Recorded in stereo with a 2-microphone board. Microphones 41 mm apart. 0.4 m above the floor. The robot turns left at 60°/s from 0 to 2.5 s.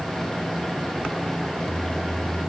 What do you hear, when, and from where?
Only background noise.